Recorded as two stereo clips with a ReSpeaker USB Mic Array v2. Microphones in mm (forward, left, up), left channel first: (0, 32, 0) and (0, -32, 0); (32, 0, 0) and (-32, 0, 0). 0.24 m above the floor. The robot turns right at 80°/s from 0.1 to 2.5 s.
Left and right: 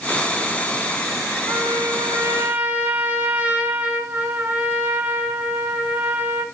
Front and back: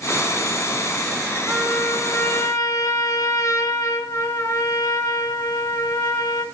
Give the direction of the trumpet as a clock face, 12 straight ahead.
4 o'clock.